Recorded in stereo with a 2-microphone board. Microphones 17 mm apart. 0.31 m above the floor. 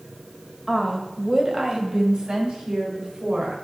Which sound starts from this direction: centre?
A woman speaking, at 0.7 s.